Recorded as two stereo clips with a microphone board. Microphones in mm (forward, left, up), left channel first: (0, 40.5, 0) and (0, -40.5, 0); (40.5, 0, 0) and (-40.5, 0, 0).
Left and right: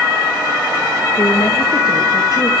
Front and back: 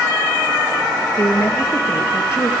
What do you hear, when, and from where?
1.2 s a woman speaking: 45° left, 3 m; by 2.5 s 50° left, 3.5 m